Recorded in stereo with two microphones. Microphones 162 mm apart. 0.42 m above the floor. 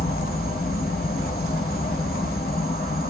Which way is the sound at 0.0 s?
70° left (ahead or behind).